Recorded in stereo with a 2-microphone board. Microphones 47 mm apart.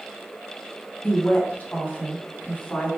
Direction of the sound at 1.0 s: 35° left (ahead or behind).